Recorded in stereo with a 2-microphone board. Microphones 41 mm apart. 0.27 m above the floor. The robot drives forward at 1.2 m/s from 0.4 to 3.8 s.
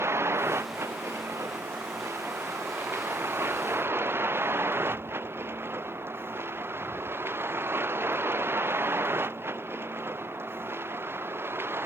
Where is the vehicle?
80° right; by 11.9 s 65° right (ahead or behind).